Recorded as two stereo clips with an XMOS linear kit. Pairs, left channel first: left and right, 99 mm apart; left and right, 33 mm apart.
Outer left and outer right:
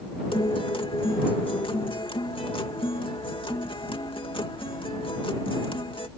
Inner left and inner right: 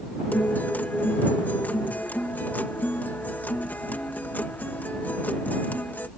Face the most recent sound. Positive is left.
turn(degrees=60)  # may be behind; listen again after turning